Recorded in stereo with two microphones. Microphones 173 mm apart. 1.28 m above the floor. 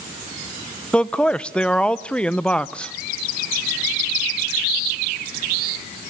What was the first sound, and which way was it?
A man speaking, 5° left (ahead or behind).